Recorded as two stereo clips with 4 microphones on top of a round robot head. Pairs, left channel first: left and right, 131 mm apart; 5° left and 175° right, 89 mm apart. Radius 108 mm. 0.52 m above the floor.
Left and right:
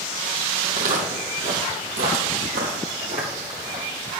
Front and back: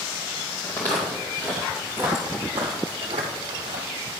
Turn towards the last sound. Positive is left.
turn(degrees=-155)